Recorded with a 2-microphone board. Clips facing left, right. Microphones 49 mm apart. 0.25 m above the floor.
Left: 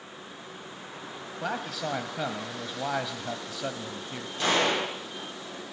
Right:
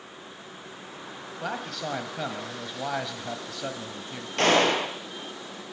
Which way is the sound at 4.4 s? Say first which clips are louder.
Right 4 dB; 70° right (ahead or behind).